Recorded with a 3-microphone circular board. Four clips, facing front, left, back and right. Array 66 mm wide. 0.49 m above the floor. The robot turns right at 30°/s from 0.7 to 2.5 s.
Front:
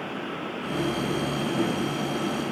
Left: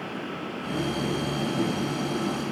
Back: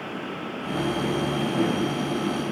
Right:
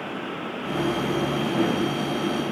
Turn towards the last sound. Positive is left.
No sound to turn to.